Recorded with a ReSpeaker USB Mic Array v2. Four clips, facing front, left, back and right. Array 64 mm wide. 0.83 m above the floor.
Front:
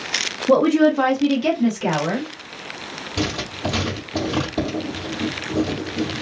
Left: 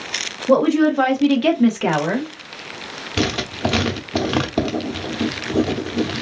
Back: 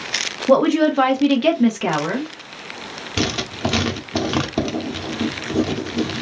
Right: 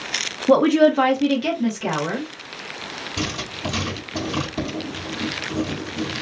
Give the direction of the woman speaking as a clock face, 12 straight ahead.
4 o'clock.